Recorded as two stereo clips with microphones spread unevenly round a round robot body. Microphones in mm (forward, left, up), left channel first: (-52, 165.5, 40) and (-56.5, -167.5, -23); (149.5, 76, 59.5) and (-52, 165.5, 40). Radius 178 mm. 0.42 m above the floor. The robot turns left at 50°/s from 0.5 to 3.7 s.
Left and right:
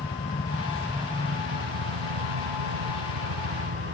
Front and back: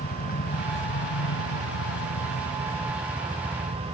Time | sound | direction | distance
0.0 | a helicopter | 20° left | ?